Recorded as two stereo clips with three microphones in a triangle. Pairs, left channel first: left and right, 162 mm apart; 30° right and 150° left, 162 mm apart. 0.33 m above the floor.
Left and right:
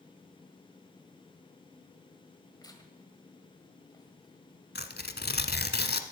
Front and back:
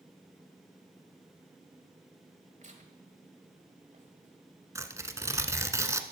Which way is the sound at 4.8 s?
80° left.